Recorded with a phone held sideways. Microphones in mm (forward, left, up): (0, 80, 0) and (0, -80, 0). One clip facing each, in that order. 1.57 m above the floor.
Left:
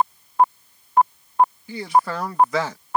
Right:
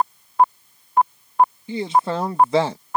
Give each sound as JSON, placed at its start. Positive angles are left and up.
{"t": 1.7, "sound": "a man speaking", "side_deg": -25}